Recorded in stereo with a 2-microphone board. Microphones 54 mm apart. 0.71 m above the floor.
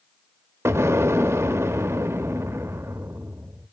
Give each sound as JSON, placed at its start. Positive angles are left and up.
{"t": 0.7, "sound": "an explosion", "side_deg": -55, "distance_m": 0.6}